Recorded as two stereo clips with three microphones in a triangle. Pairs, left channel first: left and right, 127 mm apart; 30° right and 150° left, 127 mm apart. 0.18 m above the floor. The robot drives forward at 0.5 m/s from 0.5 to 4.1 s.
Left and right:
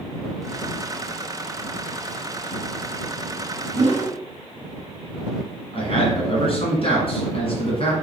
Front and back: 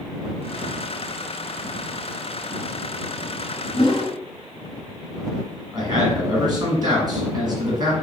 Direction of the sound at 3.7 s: 75° right.